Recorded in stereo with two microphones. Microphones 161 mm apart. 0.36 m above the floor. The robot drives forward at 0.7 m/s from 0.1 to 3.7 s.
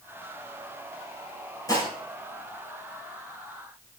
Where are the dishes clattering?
25° left (ahead or behind), 6 m.